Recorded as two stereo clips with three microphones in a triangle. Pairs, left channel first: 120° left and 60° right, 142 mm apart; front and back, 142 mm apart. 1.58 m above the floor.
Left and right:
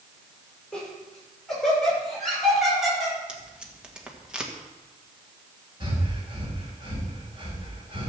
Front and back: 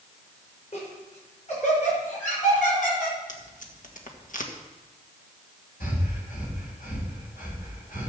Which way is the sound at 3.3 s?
25° left.